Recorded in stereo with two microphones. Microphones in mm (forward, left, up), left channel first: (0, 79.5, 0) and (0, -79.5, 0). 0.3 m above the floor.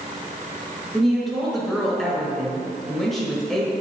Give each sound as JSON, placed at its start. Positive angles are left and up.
{"t": 0.9, "sound": "a woman speaking", "side_deg": 0, "distance_m": 1.5}